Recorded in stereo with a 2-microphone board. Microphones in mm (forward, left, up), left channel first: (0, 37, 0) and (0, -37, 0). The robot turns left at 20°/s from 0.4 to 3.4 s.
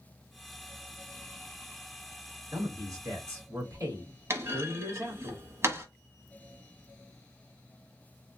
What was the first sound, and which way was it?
A man speaking, 55° right (ahead or behind).